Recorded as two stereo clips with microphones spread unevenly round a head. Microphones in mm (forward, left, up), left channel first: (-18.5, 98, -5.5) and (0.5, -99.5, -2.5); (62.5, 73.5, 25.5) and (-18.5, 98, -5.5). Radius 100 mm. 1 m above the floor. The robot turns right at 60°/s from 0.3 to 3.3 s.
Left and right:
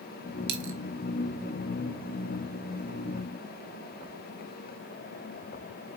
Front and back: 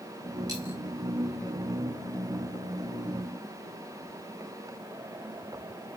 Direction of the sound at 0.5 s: 120° right.